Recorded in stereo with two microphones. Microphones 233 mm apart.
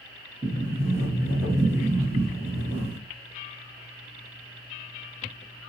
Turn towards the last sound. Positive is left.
turn(degrees=-10)  # may be behind; listen again after turning